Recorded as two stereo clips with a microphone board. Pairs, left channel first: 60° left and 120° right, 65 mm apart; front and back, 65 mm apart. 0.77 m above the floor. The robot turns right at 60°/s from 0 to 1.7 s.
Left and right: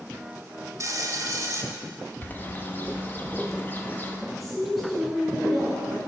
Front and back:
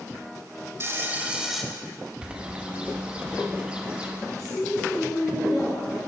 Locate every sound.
0.8 s frying: 140° right, 0.8 m; by 1.6 s 90° right, 0.8 m
2.2 s a bird: 110° left, 0.7 m
4.3 s a woman speaking: 30° right, 2.0 m